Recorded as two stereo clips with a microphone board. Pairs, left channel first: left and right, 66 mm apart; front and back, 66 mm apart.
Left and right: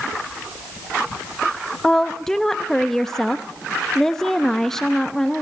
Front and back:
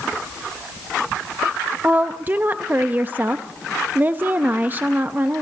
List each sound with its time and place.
1.8 s a woman speaking: 165° left, 0.6 m